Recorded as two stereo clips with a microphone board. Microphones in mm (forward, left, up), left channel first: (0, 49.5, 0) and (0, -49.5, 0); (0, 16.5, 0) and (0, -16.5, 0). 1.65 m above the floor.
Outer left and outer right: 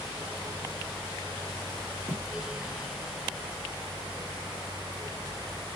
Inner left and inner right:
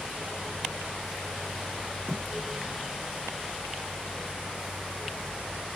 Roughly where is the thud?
Left.